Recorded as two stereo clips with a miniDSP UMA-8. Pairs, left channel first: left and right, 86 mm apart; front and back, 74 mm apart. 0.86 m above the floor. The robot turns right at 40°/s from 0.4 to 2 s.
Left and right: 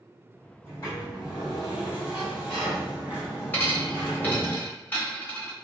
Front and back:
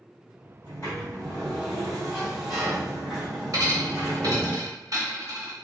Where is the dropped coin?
160° left, 1.0 m.